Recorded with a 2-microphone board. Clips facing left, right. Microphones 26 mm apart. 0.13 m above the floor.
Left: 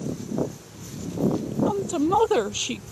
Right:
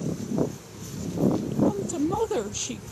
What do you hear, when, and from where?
1.7 s a woman speaking: 35° left (ahead or behind)